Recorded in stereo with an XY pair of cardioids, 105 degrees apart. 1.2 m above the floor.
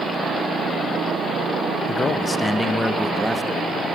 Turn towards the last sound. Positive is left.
turn(degrees=-15)